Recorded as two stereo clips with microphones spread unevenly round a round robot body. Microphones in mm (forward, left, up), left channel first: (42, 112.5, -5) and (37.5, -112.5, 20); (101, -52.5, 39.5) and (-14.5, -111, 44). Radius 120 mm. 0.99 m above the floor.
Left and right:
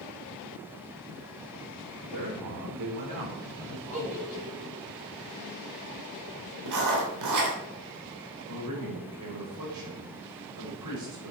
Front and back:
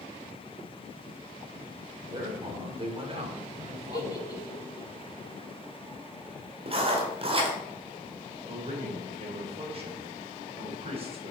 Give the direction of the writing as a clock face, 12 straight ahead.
4 o'clock.